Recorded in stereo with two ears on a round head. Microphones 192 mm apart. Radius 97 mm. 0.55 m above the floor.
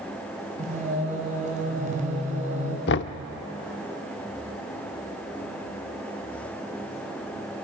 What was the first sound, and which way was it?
Singing, 40° right (ahead or behind).